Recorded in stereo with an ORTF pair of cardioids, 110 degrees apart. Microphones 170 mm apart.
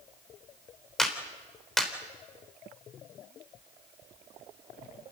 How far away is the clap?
About 3.5 m.